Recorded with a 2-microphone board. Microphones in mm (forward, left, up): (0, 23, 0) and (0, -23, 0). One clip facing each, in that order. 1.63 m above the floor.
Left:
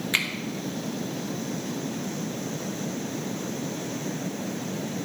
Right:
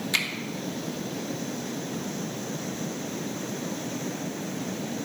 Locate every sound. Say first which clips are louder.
0.1 s a finger snap: left 2 dB; 25° left (ahead or behind), 1.1 m